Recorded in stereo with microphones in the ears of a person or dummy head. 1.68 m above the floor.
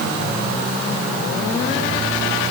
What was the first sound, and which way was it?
Only background noise.